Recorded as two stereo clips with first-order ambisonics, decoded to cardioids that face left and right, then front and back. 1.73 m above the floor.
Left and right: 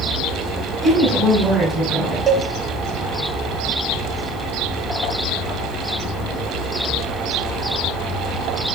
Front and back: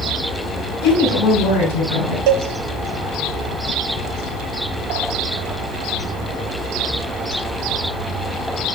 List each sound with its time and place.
0.8 s a woman speaking: 15° right, 5 m
2.3 s a cowbell: 165° right, 0.7 m